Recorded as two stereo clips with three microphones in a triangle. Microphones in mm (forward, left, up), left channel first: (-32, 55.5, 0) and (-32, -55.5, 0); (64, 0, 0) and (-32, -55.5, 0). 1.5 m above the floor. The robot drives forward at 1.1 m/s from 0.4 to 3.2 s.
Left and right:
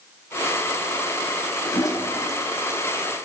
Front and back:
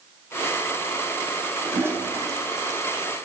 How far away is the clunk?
I don't hear a clunk.